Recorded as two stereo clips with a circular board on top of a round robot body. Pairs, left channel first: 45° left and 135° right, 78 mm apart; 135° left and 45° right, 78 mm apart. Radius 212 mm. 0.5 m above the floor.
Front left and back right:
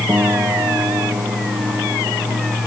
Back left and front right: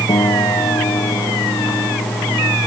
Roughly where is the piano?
Behind.